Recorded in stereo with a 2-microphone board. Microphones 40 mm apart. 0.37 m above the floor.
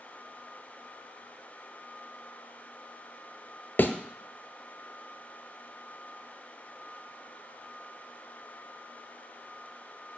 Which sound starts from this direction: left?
A thud, at 3.8 s.